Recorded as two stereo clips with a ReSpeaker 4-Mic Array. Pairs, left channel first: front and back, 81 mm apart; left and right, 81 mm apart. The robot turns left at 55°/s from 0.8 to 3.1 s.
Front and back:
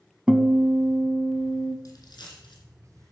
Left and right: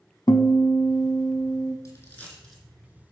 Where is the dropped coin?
45° left, 3 m; by 2.6 s 5° left, 3 m.